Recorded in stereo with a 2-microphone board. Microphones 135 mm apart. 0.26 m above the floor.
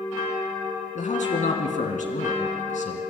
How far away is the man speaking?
About 2 m.